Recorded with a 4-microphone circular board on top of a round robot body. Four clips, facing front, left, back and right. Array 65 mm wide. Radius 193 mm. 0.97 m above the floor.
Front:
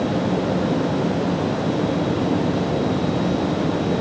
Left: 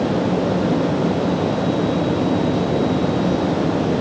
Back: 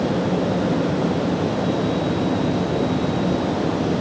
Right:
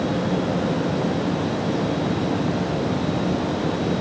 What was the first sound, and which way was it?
Only background noise.